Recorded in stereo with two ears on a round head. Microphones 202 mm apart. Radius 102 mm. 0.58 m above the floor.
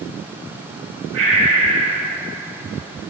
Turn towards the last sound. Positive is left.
turn(degrees=-75)  # may be behind; listen again after turning